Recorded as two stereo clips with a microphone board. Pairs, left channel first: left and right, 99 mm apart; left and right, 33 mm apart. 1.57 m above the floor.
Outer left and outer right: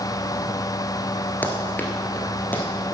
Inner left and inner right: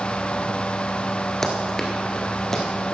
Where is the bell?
I don't hear a bell.